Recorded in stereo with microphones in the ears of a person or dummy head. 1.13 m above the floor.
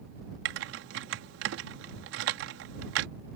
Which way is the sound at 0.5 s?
70° right (ahead or behind).